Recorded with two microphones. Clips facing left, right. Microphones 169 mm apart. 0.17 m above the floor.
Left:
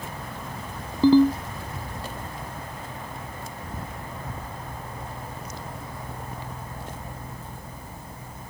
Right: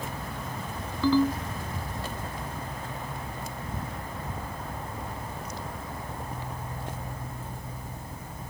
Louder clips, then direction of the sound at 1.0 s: Left 7 dB; 35° left (ahead or behind).